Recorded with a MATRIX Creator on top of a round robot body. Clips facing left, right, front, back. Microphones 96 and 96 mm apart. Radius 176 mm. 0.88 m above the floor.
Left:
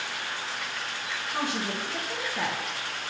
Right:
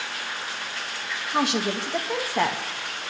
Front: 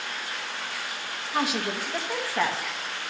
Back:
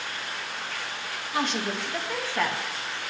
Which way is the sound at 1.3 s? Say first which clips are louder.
Right 7 dB, front 1 dB; 85° right.